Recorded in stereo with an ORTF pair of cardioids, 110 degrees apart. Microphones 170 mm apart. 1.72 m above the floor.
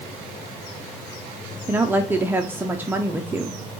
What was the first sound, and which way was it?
A woman speaking, 10° right.